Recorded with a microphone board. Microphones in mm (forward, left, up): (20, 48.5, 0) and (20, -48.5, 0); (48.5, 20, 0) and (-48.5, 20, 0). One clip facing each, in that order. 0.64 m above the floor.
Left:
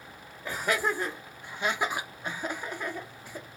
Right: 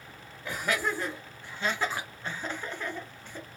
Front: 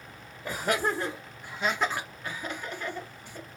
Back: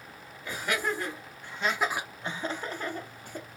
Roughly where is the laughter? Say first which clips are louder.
Left 2 dB, front 3 dB; ahead.